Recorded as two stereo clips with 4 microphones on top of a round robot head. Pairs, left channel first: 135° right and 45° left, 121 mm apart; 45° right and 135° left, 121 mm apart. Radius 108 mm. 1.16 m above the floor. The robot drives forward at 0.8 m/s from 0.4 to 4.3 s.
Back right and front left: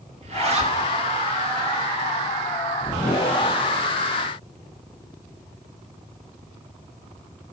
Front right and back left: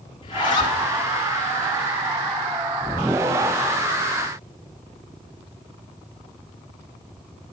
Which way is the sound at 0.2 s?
10° left.